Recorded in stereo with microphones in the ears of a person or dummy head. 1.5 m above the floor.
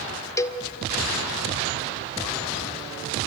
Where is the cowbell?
15° left (ahead or behind), 0.9 m.